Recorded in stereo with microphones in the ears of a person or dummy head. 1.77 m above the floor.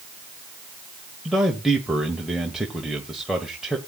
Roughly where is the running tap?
I don't hear a running tap.